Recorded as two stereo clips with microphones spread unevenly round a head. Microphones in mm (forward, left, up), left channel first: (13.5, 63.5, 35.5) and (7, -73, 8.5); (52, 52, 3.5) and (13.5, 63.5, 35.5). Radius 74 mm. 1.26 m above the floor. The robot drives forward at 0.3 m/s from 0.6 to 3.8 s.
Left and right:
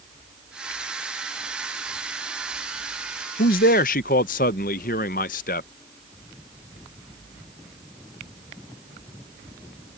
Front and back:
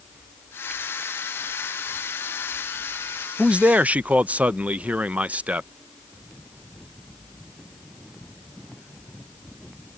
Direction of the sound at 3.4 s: 110° left.